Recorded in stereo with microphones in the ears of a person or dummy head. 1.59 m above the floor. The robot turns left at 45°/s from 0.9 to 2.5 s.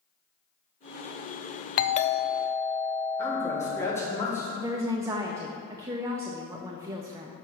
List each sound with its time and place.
1.8 s a doorbell: 50° left, 0.6 m; by 3.8 s 15° left, 0.6 m
3.2 s a man speaking: 15° left (ahead or behind), 2.5 m
4.6 s a woman speaking: 20° right (ahead or behind), 0.5 m